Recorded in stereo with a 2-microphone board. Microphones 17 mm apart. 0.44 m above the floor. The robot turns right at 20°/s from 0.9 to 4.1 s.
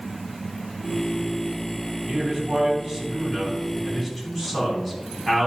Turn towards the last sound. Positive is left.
turn(degrees=10)